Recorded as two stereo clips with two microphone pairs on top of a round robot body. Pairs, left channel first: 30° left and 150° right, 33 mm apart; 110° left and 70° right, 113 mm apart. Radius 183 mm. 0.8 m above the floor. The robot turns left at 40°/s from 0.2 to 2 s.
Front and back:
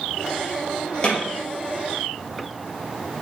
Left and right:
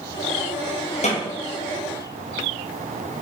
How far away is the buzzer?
No buzzer in this recording.